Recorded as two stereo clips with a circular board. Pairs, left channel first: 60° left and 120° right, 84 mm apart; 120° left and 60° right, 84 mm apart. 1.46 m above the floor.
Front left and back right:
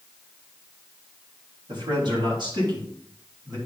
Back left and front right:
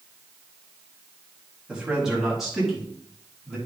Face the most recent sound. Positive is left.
turn(degrees=-155)